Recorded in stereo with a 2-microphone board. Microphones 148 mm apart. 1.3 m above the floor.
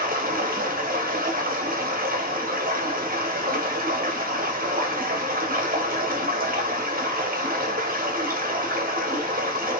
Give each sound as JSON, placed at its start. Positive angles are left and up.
{"t": 0.0, "sound": "running water", "side_deg": -80, "distance_m": 0.9}